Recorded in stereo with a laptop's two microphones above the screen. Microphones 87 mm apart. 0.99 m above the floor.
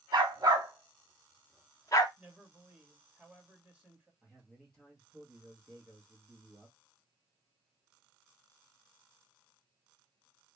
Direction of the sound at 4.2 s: 10° right (ahead or behind).